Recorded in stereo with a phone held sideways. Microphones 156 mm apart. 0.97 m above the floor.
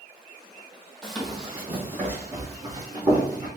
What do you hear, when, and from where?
1.0 s running footsteps: 5° left (ahead or behind), 1.2 m; by 3.5 s 25° right (ahead or behind), 2 m